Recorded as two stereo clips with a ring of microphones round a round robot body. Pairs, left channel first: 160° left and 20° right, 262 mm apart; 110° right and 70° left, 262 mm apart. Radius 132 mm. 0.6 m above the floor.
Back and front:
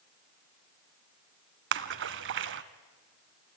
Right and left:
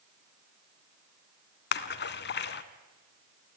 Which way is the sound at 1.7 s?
65° right.